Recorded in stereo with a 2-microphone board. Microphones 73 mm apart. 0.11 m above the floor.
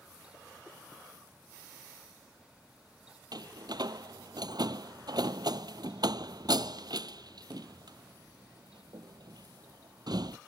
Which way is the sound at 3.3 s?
65° right (ahead or behind).